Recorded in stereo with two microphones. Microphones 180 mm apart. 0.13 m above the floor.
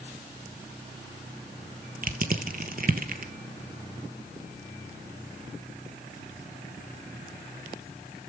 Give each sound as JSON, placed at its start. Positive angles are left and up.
{"t": 2.0, "sound": "crushing", "side_deg": -55, "distance_m": 0.9}